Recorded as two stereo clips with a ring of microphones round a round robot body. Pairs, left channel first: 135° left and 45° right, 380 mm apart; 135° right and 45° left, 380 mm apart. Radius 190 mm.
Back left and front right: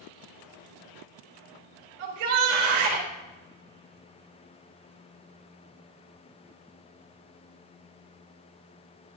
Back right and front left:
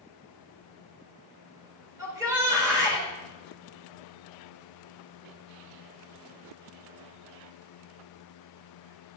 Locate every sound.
2.0 s a shout: 45° right, 5.5 m